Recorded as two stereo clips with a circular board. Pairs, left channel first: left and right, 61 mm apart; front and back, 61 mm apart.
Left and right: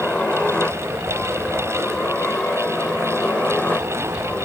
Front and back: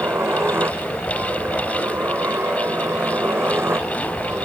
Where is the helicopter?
155° left; by 4.5 s 145° left.